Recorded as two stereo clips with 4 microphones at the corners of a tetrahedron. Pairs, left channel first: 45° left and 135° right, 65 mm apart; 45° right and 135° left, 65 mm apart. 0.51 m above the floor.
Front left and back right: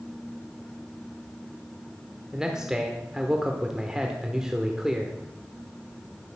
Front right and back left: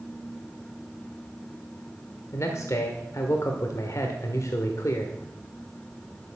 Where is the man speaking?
60° right, 1.3 m.